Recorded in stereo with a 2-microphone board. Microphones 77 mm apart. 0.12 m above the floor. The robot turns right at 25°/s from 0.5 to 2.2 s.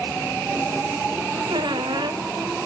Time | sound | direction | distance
1.5 | a squeak | 85° right | 1.1 m